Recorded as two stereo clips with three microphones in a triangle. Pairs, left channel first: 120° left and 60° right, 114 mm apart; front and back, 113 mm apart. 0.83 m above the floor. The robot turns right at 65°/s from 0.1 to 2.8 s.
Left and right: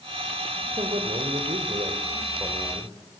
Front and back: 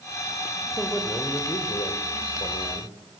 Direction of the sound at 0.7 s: 105° right.